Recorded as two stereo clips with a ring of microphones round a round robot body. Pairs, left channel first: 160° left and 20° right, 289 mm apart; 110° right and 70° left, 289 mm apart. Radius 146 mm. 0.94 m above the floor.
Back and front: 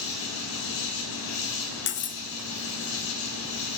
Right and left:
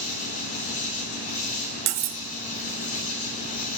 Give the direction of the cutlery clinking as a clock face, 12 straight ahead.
9 o'clock.